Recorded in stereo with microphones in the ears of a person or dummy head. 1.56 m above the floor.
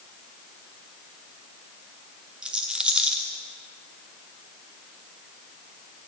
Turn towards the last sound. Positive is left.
turn(degrees=0)  # may be behind; listen again after turning